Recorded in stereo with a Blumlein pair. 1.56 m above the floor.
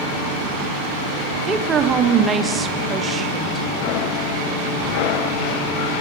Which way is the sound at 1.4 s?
15° right.